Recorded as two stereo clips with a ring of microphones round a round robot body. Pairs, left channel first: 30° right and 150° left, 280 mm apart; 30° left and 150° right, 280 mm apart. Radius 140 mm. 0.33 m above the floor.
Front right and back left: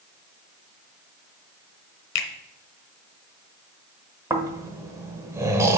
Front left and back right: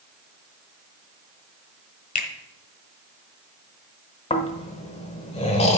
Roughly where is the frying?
I don't hear frying.